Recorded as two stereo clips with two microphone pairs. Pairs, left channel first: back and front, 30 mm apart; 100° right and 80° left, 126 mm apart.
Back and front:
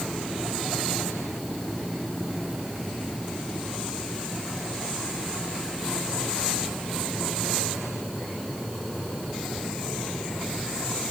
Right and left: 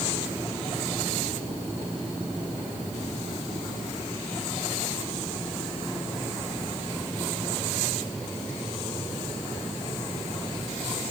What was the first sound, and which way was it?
Only background noise.